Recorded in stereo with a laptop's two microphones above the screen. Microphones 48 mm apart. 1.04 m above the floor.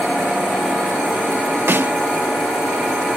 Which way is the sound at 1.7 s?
50° right (ahead or behind).